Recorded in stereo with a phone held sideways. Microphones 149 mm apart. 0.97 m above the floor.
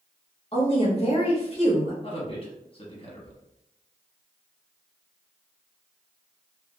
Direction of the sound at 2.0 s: 35° left (ahead or behind).